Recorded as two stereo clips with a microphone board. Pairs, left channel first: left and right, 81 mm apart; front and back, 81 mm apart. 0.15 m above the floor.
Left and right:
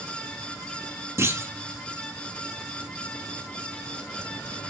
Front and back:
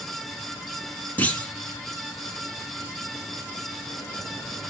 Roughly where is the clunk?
Ahead right.